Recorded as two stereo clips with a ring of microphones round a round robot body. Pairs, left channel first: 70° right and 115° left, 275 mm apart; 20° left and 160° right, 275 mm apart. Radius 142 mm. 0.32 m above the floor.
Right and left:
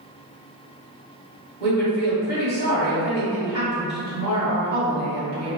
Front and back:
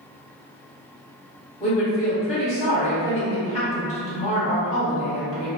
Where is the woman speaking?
35° right, 1.8 m.